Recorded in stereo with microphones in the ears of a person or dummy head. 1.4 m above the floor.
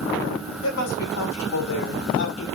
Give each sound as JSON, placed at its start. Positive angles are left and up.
{"t": 0.6, "sound": "a woman speaking", "side_deg": 85, "distance_m": 6.0}